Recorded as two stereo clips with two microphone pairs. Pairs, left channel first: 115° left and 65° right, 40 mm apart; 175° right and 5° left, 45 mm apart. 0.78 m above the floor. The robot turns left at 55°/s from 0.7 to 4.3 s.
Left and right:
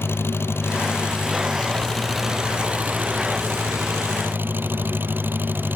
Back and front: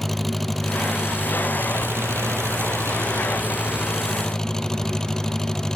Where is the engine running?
100° left; by 5.8 s 100° right.